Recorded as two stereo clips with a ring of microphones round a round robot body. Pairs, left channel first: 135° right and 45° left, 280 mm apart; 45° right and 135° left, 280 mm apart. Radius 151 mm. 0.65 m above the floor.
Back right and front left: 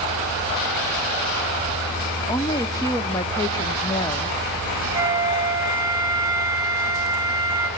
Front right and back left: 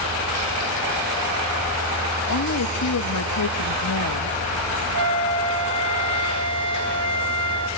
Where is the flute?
120° left, 4.5 m.